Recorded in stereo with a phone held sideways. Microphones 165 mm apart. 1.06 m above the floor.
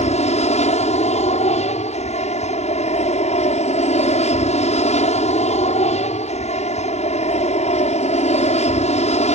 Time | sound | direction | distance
0.0 | an aircraft | 40° left (ahead or behind) | ?